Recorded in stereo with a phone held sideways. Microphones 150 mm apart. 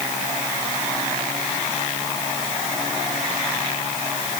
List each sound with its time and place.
Only background noise.